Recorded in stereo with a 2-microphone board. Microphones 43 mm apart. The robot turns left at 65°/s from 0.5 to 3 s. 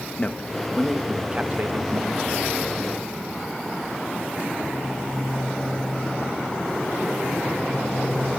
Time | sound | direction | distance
0.2 | a man speaking | 25° left (ahead or behind) | 1.8 m